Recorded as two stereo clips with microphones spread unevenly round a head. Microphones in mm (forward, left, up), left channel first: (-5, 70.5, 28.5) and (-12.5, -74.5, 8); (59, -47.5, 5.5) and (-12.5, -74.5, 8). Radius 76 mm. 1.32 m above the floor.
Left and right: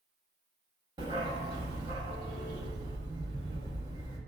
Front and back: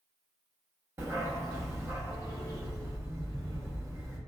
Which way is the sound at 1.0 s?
150° right.